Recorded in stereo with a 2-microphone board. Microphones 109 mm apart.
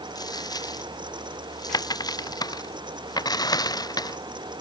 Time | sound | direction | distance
0.1 | a dropped coin | 35° left (ahead or behind) | ?